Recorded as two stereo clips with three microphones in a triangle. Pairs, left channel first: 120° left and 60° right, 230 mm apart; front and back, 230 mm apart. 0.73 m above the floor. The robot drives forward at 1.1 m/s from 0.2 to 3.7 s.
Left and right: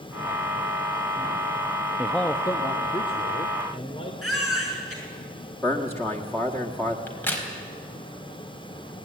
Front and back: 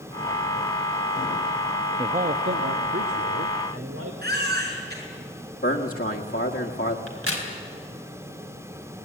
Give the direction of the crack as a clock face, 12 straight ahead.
5 o'clock.